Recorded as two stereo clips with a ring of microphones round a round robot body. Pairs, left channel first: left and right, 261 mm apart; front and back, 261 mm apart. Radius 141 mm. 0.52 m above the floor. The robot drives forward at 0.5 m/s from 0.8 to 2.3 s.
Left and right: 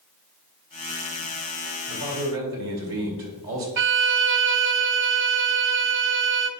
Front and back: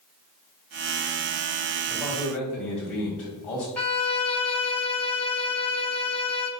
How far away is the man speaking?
About 3 m.